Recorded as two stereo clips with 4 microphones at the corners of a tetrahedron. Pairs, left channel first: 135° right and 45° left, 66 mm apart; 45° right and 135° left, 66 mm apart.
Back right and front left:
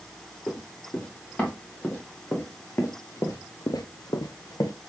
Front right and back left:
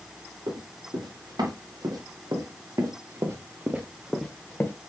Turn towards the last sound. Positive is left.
turn(degrees=-105)